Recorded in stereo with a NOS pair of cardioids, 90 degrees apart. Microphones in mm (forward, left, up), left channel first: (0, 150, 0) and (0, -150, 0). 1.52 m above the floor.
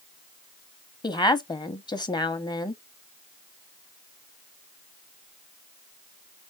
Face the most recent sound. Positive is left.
turn(degrees=15)